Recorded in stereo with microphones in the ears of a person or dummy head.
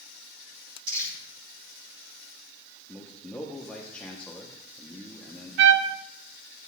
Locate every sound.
0.9 s crumpling: 70° right (ahead or behind), 7 m
2.9 s a man speaking: 5° left (ahead or behind), 1.1 m
5.6 s a trumpet: 65° right (ahead or behind), 0.7 m